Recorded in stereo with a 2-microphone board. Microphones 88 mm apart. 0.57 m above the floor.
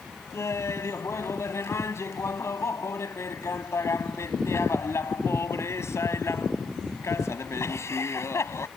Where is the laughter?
35° left (ahead or behind).